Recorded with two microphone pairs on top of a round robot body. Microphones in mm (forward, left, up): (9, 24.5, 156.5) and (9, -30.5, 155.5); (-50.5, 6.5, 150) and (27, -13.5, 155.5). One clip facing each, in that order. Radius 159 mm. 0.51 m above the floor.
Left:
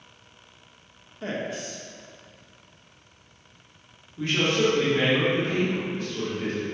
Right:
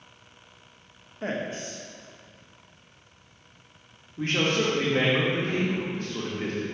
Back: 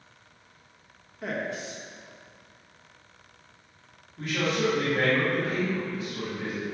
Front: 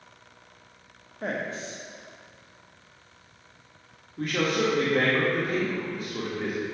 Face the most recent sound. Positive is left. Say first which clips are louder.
# left 2 dB, front 2 dB
turn(degrees=-50)